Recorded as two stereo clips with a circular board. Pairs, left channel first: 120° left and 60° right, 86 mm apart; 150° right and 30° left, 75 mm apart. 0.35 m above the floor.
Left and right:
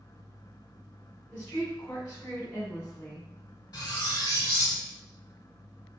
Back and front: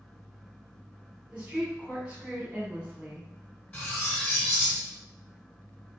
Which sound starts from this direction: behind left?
Cutlery clinking, at 3.7 s.